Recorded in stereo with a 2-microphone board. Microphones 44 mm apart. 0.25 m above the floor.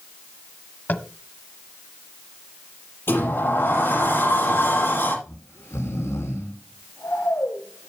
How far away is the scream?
I don't hear a scream.